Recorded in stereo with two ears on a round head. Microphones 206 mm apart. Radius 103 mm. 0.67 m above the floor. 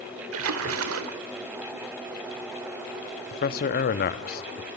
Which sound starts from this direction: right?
A splash, at 0.3 s.